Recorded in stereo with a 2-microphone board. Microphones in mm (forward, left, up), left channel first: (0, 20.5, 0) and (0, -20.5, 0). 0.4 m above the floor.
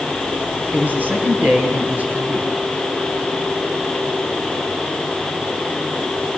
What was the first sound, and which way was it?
A man speaking, 40° right (ahead or behind).